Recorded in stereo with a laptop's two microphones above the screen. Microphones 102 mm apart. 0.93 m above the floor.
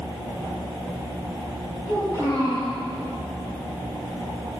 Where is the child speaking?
45° left (ahead or behind), 6.5 m.